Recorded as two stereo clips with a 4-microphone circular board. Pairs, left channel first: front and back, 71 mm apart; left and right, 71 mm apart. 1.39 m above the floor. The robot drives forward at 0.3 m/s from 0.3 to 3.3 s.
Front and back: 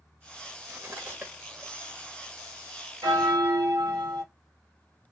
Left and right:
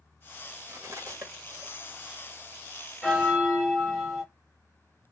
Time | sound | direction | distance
0.7 | cutlery clinking | 115° right | 1.1 m
3.0 | a bell | straight behind | 1.6 m